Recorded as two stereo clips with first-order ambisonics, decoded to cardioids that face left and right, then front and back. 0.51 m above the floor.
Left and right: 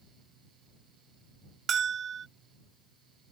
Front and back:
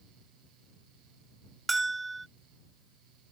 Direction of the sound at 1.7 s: 115° right.